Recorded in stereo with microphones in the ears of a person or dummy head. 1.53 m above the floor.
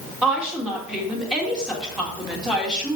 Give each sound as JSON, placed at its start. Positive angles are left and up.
{"t": 0.2, "sound": "a woman speaking", "side_deg": 0, "distance_m": 2.5}